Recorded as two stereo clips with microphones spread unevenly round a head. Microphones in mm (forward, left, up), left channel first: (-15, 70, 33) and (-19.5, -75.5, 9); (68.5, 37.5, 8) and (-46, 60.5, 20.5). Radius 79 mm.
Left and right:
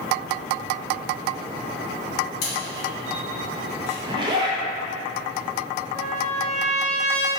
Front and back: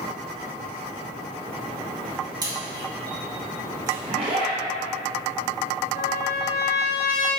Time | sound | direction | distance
2.4 | a camera shutter | 110° left | 2.0 m
4.0 | a zipper | 140° right | 0.8 m
6.0 | a trumpet | 5° left | 1.5 m